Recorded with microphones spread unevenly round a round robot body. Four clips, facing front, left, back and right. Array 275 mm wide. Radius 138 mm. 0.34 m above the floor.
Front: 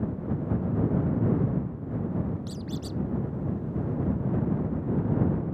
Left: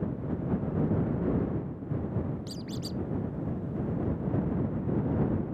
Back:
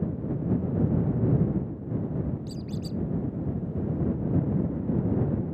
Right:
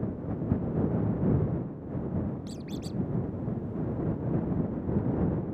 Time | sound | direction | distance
2.5 | a squeak | straight ahead | ?